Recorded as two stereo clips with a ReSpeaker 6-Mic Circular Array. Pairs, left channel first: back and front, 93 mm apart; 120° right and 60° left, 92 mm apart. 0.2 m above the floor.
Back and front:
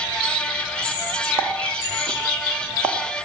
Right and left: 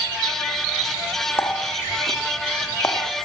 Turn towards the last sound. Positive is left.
turn(degrees=-60)